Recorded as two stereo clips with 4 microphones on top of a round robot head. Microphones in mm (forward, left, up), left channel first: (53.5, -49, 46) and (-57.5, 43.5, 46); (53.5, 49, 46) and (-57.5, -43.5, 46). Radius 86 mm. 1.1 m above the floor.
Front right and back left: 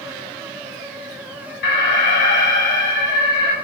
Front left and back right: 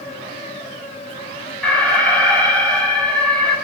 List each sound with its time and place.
1.6 s an alarm: 45° right, 7.5 m